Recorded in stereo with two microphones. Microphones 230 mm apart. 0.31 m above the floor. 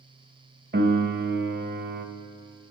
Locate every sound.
0.7 s a piano: 50° right (ahead or behind), 0.8 m